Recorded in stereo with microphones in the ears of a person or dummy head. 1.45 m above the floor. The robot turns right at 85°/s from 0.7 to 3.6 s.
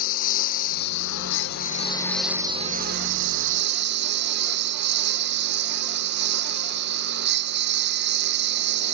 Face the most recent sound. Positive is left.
turn(degrees=-65)